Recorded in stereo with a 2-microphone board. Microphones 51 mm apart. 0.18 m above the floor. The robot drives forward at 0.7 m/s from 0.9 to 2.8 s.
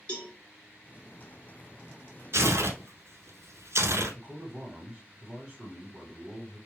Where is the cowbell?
20° left (ahead or behind), 1.8 m.